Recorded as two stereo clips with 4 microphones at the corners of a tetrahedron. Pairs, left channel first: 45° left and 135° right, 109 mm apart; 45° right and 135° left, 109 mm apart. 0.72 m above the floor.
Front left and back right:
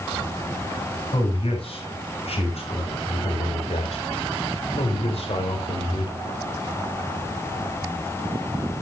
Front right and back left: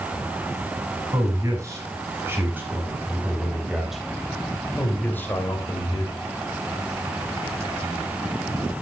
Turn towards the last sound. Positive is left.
turn(degrees=10)